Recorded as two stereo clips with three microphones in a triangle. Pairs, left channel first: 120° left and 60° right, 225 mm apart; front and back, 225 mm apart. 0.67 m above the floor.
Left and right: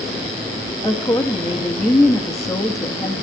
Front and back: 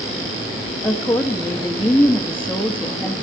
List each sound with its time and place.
0.8 s a woman speaking: 70° left, 1.2 m